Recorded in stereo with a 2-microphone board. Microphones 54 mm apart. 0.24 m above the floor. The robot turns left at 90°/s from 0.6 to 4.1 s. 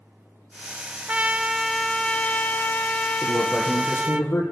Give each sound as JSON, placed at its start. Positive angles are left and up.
{"t": 1.1, "sound": "a trumpet", "azimuth_deg": -125, "distance_m": 1.2}
{"t": 3.2, "sound": "a man speaking", "azimuth_deg": -145, "distance_m": 7.5}